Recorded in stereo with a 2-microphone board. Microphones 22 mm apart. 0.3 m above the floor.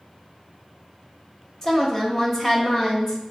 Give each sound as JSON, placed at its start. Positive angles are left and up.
{"t": 1.6, "sound": "a woman speaking", "side_deg": 20, "distance_m": 0.9}